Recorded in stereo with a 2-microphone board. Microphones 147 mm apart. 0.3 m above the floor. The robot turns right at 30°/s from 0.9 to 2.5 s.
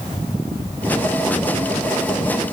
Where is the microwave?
I don't hear a microwave.